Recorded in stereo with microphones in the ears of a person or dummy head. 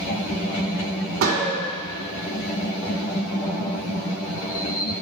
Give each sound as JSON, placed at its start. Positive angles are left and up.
{"t": 1.2, "sound": "a gunshot", "side_deg": -75, "distance_m": 2.5}